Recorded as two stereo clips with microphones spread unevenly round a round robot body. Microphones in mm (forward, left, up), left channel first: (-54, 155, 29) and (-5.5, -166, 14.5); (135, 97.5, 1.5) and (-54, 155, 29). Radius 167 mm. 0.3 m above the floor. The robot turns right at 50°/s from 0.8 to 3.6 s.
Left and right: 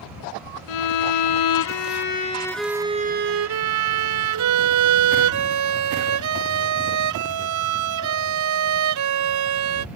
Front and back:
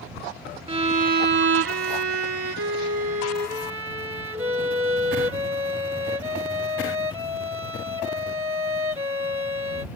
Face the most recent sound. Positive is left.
turn(degrees=-125)